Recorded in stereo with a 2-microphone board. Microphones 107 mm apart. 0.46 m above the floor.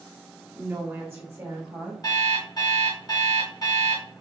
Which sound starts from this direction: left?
An alarm clock, at 2.0 s.